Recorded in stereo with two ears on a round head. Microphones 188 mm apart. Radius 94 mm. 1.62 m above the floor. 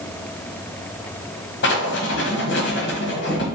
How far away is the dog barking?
No dog barking in this recording.